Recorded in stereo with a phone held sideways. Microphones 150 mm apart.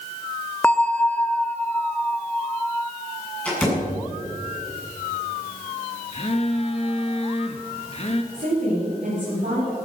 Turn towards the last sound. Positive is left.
turn(degrees=-75)  # may be behind; listen again after turning